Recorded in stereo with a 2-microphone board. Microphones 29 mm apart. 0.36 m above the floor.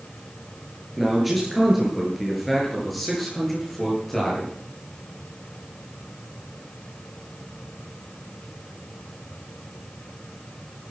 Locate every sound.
1.0 s a man speaking: 5° right (ahead or behind), 7 m; by 4.5 s 10° left (ahead or behind), 8.5 m